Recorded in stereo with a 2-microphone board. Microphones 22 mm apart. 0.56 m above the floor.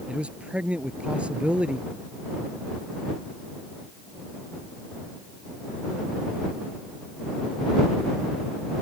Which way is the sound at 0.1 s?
65° right (ahead or behind).